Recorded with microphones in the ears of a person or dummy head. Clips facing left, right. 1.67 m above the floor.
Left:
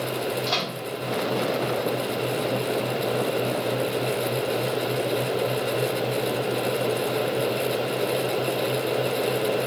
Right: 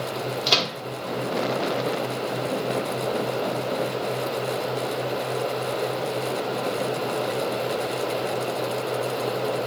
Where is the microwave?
45° right (ahead or behind), 0.9 m.